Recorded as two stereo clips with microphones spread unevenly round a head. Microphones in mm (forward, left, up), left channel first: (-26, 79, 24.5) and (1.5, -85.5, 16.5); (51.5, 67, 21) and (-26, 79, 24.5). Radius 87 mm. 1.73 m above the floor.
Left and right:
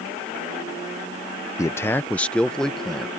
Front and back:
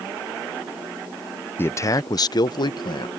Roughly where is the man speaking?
Ahead left.